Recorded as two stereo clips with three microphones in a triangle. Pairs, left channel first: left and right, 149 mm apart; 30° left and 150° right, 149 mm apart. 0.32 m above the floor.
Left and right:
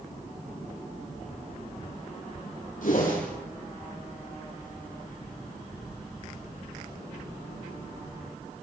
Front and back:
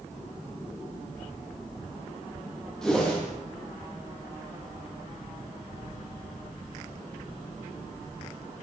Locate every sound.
2.8 s a whoosh: 115° left, 8.5 m